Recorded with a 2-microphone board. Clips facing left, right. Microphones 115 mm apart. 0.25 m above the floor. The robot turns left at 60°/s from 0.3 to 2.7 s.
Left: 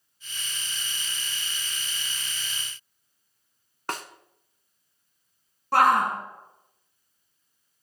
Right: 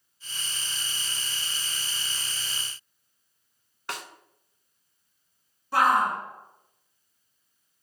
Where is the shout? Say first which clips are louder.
Left 2 dB; 65° left (ahead or behind), 2.5 m.